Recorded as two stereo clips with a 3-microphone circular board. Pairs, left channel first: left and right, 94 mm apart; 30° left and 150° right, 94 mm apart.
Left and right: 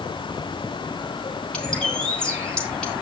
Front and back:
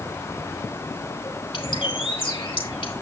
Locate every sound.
1.5 s a bird: 10° left, 4 m